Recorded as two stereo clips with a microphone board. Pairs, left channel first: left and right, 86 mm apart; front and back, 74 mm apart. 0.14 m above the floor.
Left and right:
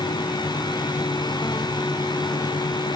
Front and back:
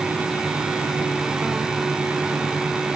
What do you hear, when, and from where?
Only background noise.